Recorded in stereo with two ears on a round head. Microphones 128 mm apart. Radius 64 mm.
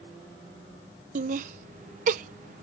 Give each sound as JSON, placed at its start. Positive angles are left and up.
{"t": 1.1, "sound": "laughter", "side_deg": -55}